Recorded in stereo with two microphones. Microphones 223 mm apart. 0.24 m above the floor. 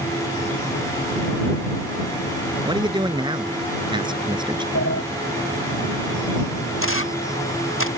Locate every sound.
2.6 s a man speaking: 20° right (ahead or behind)
4.8 s a sliding door: 75° left (ahead or behind)
6.8 s a camera shutter: 65° left (ahead or behind)